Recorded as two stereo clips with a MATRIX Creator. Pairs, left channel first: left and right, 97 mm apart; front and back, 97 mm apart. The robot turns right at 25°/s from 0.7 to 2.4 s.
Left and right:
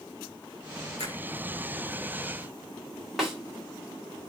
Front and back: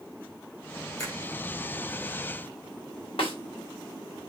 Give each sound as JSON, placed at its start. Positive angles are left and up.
{"t": 1.0, "sound": "a finger snap", "azimuth_deg": -55, "distance_m": 4.5}
{"t": 3.2, "sound": "a snare drum", "azimuth_deg": -5, "distance_m": 3.0}